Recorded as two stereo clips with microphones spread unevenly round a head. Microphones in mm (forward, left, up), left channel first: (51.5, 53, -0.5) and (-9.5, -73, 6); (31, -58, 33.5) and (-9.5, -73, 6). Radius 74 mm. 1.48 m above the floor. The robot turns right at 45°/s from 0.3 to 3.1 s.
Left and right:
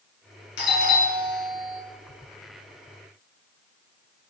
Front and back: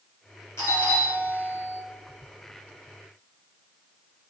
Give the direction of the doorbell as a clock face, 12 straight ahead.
9 o'clock.